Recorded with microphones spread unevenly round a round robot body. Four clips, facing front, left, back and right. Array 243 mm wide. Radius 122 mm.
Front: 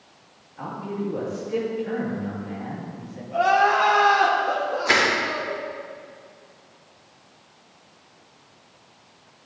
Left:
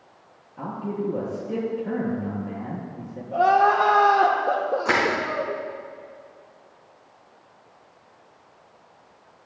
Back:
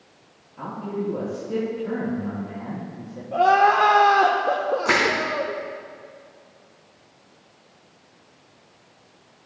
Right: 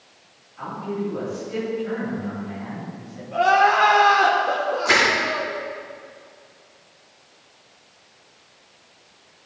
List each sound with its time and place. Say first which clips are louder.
0.6 s a man speaking: right 1 dB, back 1 dB; 120° left, 5.5 m
3.3 s crying: right 1 dB, back 2 dB; 150° left, 1.3 m
4.8 s crushing: right 3 dB, front 1 dB; 150° left, 5 m